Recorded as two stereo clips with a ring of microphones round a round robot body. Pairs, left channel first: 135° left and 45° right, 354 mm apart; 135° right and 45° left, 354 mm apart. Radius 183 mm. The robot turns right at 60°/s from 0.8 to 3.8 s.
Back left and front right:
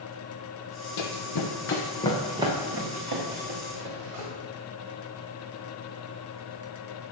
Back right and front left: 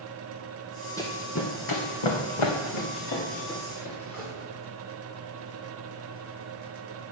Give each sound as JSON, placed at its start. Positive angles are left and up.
{"t": 1.0, "sound": "running footsteps", "azimuth_deg": 145, "distance_m": 1.3}